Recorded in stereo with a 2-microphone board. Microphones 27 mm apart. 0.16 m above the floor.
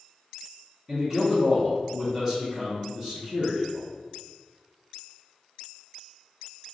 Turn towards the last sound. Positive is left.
turn(degrees=-5)  # may be behind; listen again after turning